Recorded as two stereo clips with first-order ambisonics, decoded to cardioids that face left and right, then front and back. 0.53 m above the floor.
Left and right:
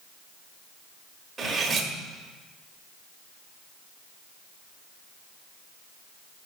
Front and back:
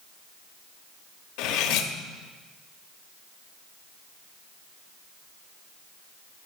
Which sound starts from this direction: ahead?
Cutlery clinking, at 1.4 s.